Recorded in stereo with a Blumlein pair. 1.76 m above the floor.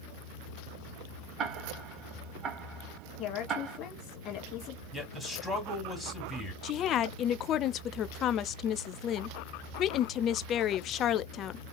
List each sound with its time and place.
1.4 s ticking: 25° right, 1.3 m
3.2 s a woman speaking: 30° left, 2.5 m
4.9 s a man speaking: 10° left, 2.5 m
6.6 s a woman speaking: 30° left, 0.5 m